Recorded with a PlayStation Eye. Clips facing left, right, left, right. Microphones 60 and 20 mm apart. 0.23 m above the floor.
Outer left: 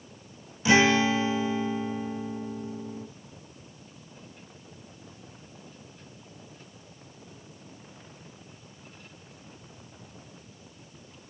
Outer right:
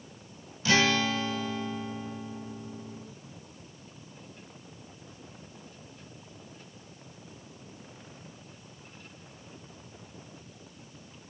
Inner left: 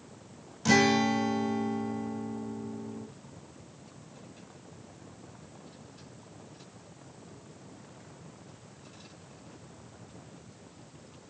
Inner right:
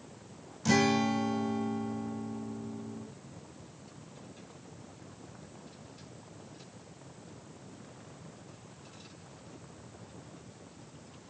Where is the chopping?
I don't hear chopping.